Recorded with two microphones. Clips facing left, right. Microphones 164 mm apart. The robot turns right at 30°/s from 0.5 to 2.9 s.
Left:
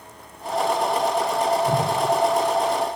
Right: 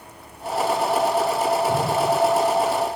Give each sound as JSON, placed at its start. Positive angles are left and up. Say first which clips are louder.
{"t": 1.6, "sound": "a whoosh", "louder": "even", "side_deg": 80, "distance_m": 7.5}